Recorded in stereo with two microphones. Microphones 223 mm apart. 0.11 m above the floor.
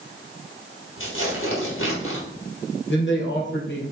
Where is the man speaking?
55° left (ahead or behind), 2.5 m.